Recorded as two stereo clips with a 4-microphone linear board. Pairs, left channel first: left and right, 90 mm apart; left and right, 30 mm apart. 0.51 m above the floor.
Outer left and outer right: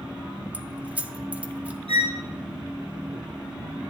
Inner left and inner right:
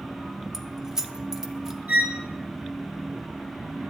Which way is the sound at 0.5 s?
15° right (ahead or behind).